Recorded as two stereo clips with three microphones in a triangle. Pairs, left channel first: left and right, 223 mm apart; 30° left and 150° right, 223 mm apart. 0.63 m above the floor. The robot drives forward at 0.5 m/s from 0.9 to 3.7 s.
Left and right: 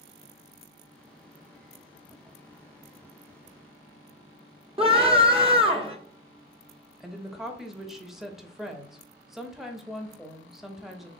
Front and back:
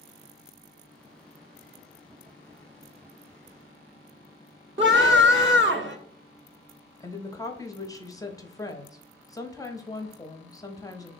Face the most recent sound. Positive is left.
turn(degrees=-5)